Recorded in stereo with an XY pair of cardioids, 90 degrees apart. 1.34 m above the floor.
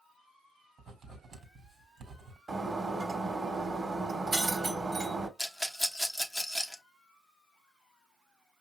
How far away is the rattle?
About 1.2 m.